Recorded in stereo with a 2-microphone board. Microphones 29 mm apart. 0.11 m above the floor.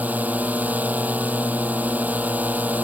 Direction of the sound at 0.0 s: 60° right (ahead or behind).